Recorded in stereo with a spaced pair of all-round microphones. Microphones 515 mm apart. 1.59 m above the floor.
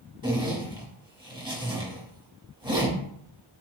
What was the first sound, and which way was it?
A zipper, 10° right (ahead or behind).